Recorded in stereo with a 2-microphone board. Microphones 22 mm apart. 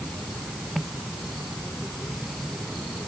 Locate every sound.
Only background noise.